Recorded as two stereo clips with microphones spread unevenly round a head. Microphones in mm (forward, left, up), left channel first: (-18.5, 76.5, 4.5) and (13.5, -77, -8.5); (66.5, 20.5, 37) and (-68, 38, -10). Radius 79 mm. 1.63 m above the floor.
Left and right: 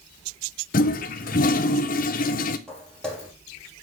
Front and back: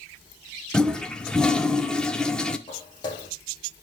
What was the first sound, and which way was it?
A toilet flushing, 70° left.